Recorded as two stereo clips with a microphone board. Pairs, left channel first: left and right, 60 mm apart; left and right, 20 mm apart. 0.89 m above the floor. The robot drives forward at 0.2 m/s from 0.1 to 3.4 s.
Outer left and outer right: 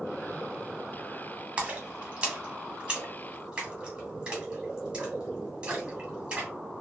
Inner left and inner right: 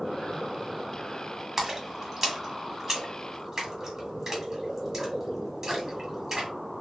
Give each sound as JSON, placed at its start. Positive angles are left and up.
{"t": 1.6, "sound": "a splash", "side_deg": -20, "distance_m": 0.9}